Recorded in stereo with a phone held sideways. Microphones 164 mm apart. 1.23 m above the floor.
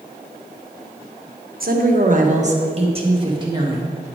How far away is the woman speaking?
About 1.1 m.